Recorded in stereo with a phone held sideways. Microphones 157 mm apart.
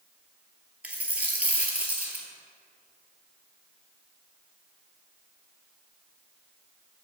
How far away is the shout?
No shout in this recording.